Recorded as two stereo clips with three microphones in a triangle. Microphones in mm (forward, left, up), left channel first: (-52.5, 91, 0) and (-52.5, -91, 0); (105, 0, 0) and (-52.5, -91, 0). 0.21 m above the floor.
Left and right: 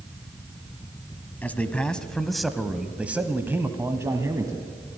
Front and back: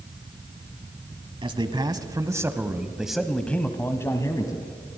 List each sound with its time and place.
1.4 s a man speaking: 165° left, 1.3 m; by 4.7 s 25° right, 1.4 m